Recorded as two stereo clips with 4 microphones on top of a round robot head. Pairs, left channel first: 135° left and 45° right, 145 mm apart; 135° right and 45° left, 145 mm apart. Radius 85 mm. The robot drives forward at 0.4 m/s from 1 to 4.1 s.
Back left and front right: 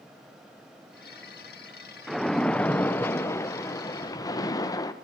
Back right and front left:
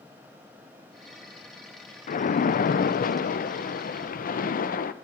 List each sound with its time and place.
2.1 s a splash: 135° right, 0.9 m; by 4.9 s 160° right, 1.5 m